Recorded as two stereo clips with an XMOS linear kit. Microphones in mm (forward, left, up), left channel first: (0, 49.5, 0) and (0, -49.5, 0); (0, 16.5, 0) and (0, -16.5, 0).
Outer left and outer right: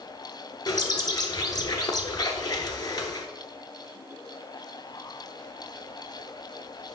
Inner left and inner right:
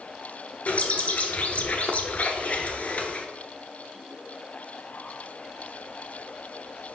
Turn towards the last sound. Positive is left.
turn(degrees=40)  # may be behind; listen again after turning